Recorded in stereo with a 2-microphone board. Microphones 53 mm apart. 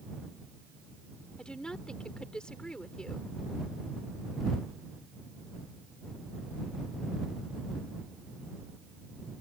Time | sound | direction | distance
1.4 | a woman speaking | 15° left (ahead or behind) | ?